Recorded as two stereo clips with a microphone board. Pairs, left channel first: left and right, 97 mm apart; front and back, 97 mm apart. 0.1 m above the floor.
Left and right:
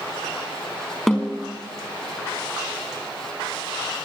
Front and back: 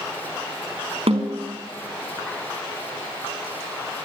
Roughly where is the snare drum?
Behind.